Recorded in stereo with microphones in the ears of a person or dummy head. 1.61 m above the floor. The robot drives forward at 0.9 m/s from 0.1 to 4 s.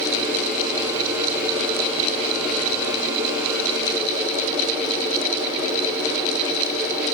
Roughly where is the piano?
I don't hear a piano.